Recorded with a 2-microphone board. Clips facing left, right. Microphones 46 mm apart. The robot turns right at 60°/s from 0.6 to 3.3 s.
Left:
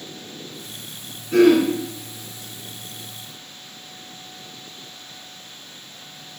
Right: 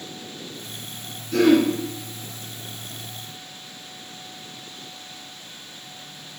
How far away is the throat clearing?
About 1.8 m.